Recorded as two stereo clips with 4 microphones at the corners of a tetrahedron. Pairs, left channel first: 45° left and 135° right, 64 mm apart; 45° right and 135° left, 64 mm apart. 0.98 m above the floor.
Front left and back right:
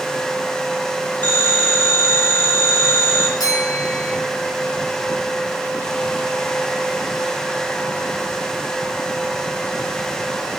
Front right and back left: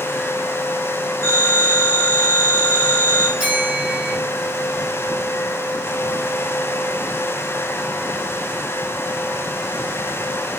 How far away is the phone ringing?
About 4 m.